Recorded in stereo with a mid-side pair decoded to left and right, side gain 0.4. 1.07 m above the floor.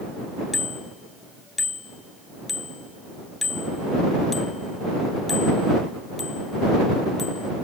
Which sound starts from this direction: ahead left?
A bicycle bell, at 0.5 s.